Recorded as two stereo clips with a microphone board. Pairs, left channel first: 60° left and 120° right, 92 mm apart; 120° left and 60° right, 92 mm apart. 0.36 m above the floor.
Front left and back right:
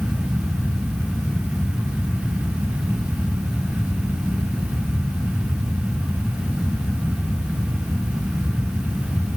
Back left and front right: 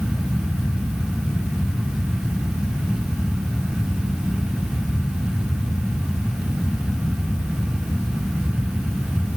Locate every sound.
Only background noise.